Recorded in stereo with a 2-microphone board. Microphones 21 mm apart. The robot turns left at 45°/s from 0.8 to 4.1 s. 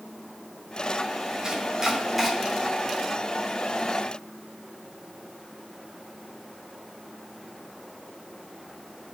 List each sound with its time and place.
1.4 s chopping: 40° right (ahead or behind), 3 m; by 2.3 s centre (ahead or behind), 3 m